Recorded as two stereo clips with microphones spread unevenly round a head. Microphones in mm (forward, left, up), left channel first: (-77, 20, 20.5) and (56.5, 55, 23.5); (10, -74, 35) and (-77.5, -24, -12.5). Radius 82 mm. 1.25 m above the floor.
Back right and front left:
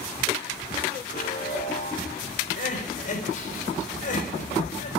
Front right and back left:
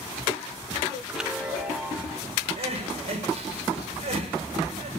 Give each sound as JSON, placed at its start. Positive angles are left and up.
{"t": 1.1, "sound": "a chime", "azimuth_deg": -120, "distance_m": 2.5}
{"t": 2.6, "sound": "crying", "azimuth_deg": 165, "distance_m": 5.0}